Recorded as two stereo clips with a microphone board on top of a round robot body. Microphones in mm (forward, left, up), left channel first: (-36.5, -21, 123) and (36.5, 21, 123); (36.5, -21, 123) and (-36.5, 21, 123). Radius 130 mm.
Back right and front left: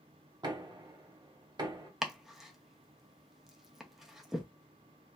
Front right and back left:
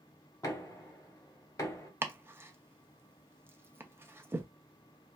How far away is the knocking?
About 1.3 m.